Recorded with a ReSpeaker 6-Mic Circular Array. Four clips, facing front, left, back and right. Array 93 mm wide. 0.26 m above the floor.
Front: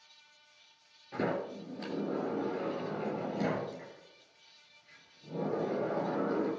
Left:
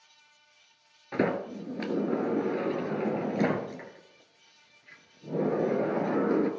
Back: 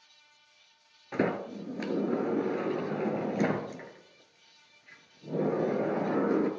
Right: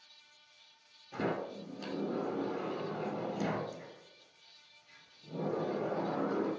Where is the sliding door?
130° left, 1.3 m.